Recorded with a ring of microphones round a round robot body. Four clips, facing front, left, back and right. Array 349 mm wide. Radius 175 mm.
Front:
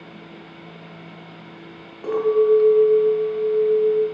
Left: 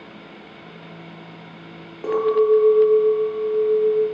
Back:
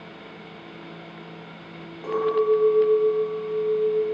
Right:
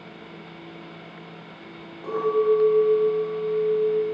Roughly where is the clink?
Left.